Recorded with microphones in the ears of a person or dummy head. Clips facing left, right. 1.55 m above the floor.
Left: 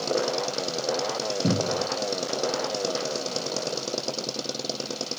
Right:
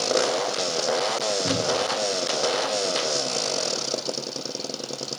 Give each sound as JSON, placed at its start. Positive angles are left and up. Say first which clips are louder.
{"t": 1.4, "sound": "a cupboard door", "louder": "left 2 dB", "side_deg": 75, "distance_m": 1.4}